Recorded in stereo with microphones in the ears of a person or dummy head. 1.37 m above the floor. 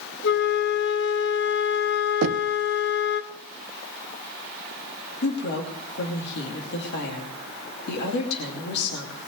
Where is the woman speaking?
55° left (ahead or behind), 2.5 m.